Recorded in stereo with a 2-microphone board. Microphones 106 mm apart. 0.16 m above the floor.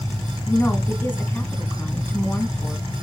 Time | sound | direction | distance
0.5 | a woman speaking | 20° left (ahead or behind) | 1.4 m